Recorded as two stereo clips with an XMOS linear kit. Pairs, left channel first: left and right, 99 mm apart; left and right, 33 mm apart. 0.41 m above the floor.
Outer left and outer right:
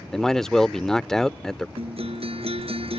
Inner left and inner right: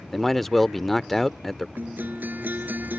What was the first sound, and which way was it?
A man speaking, 5° left (ahead or behind).